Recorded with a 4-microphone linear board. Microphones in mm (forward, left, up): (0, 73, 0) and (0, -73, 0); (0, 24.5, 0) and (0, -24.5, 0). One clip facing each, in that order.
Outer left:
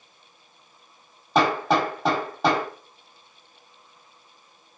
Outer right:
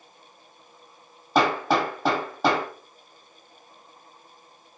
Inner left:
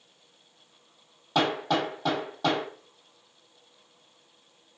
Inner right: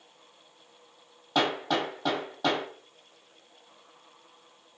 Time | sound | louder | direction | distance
1.4 | hammering | outer left 1 dB, inner left 1 dB | centre (ahead or behind) | 1.4 m